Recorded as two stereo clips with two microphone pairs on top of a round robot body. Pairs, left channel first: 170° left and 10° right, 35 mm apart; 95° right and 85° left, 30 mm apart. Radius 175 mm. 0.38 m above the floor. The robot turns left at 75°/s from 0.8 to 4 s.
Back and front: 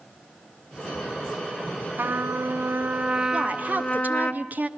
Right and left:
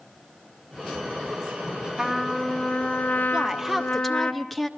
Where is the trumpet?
20° left, 2.5 m; by 4.3 s 135° right, 2.5 m.